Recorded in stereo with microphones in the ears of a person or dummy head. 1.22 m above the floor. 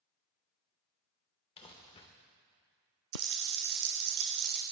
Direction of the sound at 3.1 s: 55° right (ahead or behind).